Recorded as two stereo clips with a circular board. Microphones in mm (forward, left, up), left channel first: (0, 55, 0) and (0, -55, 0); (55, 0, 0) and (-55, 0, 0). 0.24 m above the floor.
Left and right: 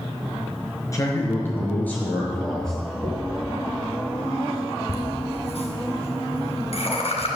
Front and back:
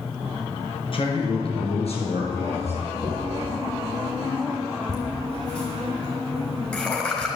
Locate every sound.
0.9 s a man speaking: 30° left, 4 m; by 2.8 s 5° left, 5.5 m
3.0 s a dropped coin: 45° right, 5.5 m
4.9 s laughter: 80° left, 3.5 m